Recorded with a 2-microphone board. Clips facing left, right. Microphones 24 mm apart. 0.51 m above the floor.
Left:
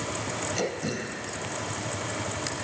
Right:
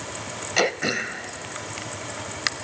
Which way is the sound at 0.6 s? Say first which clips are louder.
Right 12 dB; 55° right (ahead or behind).